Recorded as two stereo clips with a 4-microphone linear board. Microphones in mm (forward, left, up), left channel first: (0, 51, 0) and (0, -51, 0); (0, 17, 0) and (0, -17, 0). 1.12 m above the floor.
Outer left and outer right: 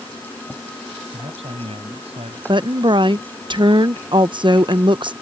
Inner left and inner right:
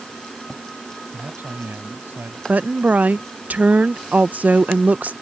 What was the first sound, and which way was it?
A man speaking, 75° right (ahead or behind).